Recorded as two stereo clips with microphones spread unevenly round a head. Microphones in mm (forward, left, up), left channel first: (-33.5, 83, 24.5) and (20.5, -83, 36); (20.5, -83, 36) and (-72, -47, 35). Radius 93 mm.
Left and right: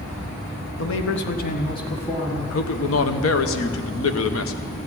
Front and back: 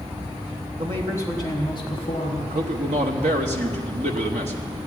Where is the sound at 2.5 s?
115° left, 1.1 m.